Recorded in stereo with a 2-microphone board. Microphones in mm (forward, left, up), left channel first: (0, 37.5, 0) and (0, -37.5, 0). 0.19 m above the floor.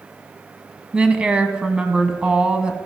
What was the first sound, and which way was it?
A woman speaking, 15° right (ahead or behind).